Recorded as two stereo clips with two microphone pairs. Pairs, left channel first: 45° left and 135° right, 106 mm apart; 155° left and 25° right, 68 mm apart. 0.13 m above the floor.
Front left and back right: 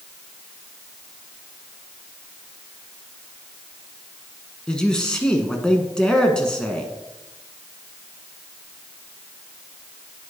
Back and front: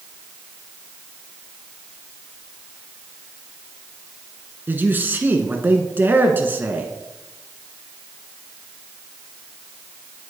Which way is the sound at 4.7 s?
30° right.